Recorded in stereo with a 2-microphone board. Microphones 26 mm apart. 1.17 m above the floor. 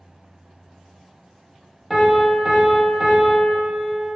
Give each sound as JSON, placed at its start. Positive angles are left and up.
{"t": 1.9, "sound": "a piano", "side_deg": -5, "distance_m": 0.9}